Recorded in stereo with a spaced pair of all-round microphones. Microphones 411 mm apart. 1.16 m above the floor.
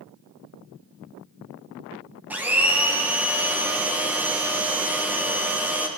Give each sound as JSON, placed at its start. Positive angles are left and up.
{"t": 2.3, "sound": "a blender", "side_deg": -5, "distance_m": 1.2}